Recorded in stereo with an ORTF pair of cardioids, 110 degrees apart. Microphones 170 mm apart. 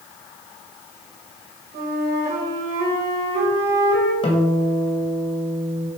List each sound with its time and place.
1.7 s a flute: 65° right, 2.5 m
4.2 s a guitar: 35° left, 1.8 m